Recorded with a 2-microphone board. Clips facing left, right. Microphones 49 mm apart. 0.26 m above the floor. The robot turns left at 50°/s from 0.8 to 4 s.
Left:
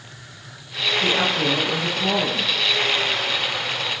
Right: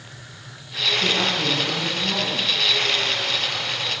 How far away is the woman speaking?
About 6 m.